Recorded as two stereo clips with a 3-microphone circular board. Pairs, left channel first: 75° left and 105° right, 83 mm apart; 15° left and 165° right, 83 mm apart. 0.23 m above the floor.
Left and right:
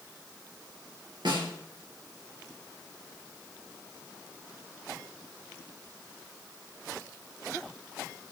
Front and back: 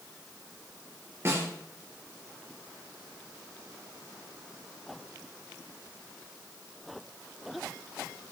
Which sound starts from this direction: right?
A snare drum, at 1.2 s.